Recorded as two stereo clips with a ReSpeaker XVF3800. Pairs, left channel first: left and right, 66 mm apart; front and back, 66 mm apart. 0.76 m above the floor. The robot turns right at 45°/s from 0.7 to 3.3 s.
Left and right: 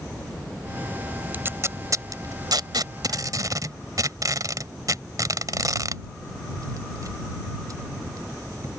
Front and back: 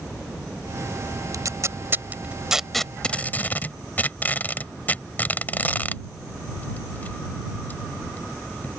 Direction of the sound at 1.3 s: 150° right.